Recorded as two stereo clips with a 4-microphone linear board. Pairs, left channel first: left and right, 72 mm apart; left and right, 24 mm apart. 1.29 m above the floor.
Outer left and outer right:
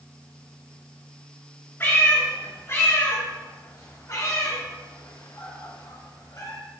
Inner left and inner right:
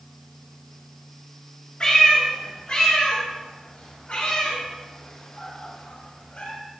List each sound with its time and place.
1.8 s a cat meowing: 30° left (ahead or behind), 3 m; by 6.5 s 60° left (ahead or behind), 2 m